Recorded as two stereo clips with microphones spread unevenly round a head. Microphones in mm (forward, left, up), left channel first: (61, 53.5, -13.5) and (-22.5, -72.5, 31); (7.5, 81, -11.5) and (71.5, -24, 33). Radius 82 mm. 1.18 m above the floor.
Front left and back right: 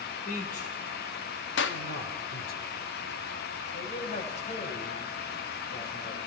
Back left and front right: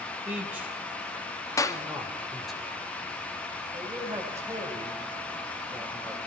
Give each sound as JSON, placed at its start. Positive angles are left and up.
{"t": 0.2, "sound": "a man speaking", "azimuth_deg": 20, "distance_m": 6.0}
{"t": 1.6, "sound": "a clap", "azimuth_deg": 50, "distance_m": 1.5}
{"t": 3.7, "sound": "a man speaking", "azimuth_deg": 10, "distance_m": 6.5}